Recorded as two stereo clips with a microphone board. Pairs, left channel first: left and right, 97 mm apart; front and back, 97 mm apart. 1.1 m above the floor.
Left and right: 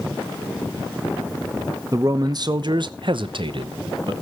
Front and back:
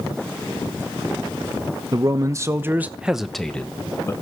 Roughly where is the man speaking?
Behind right.